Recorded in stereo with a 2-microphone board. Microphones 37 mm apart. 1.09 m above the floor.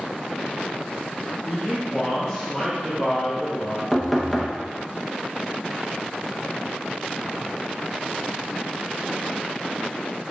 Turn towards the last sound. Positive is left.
turn(degrees=5)  # may be behind; listen again after turning